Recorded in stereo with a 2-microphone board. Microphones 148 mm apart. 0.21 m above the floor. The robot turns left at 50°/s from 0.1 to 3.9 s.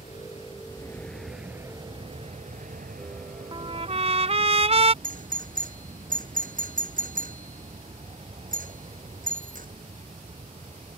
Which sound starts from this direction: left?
An aircraft, at 0.0 s.